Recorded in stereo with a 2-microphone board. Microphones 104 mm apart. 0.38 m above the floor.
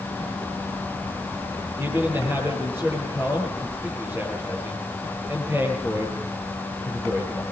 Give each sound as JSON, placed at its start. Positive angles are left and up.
{"t": 1.8, "sound": "a man speaking", "side_deg": -20, "distance_m": 8.0}